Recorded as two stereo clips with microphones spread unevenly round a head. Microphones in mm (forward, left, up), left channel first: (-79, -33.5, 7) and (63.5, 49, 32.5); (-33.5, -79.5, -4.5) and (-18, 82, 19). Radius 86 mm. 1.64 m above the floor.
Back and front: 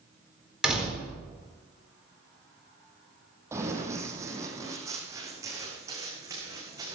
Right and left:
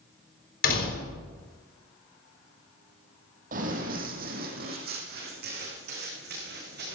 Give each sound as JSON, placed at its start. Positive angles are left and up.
{"t": 0.6, "sound": "a door slam", "azimuth_deg": -55, "distance_m": 4.0}
{"t": 3.5, "sound": "running footsteps", "azimuth_deg": 95, "distance_m": 3.0}